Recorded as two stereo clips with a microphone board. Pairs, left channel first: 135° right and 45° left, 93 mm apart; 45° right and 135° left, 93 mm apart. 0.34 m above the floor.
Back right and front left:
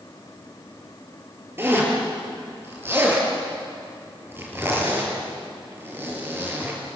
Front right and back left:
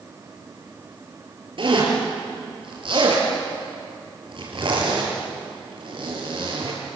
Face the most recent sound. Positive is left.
turn(degrees=110)